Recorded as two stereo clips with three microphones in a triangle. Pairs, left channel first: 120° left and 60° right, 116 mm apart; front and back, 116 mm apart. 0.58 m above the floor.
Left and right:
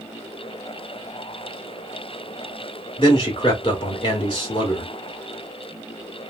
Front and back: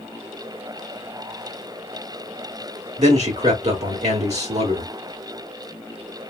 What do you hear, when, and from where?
3.0 s a man speaking: 165° left, 1.5 m